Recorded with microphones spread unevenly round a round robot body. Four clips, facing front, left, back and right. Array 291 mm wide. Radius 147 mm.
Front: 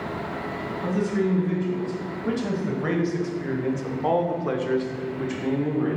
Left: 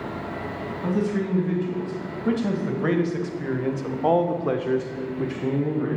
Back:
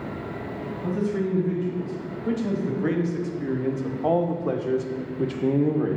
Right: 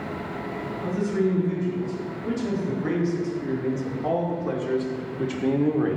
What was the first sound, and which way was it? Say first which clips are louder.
A man speaking: even, front 2 dB; 60° left.